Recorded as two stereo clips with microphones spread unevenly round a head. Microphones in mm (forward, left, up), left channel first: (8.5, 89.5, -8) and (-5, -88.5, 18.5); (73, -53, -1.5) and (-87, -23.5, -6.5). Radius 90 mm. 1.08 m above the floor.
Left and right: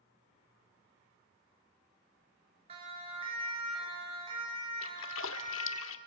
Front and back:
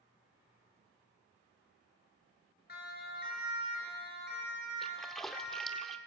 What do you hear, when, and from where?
2.7 s a siren: 35° right, 6.5 m; by 5.8 s 30° right, 9 m
4.8 s a splash: 75° left, 1.0 m